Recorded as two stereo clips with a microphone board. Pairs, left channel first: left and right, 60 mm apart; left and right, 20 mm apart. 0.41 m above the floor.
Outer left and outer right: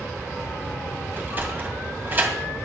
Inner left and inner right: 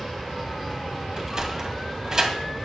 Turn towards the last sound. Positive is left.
turn(degrees=-30)  # may be behind; listen again after turning